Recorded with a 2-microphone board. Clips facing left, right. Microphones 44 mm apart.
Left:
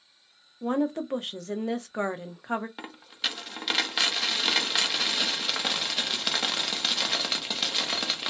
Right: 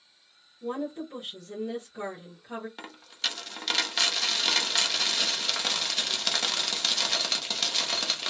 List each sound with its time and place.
0.6 s a woman speaking: 70° left (ahead or behind), 0.8 m
2.8 s a dropped coin: 10° left (ahead or behind), 0.6 m